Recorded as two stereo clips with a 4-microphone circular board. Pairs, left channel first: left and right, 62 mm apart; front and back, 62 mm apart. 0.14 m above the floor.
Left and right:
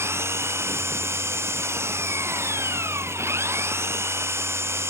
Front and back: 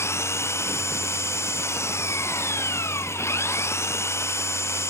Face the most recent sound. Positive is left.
turn(degrees=-45)